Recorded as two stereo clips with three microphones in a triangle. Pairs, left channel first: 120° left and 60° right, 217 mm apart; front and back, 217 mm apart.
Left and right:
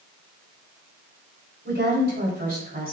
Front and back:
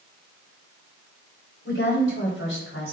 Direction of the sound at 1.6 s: 25° right.